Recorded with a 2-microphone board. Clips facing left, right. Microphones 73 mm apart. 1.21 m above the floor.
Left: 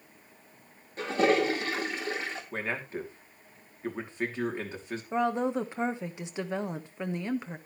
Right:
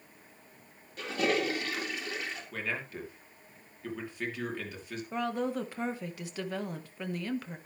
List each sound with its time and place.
1.0 s a toilet flushing: 35° left (ahead or behind), 3 m
2.5 s a man speaking: 30° left (ahead or behind), 3 m
5.1 s a woman speaking: 25° left (ahead or behind), 1.3 m